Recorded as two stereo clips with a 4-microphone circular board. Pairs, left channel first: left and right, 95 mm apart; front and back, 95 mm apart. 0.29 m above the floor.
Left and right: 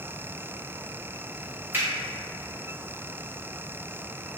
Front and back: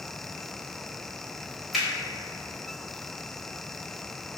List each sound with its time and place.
1.7 s a finger snap: 95° right, 0.8 m